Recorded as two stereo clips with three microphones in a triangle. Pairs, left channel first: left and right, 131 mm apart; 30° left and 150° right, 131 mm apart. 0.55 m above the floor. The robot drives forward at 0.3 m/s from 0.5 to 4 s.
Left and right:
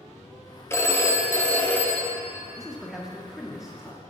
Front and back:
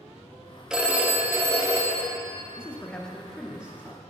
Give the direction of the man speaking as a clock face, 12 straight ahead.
12 o'clock.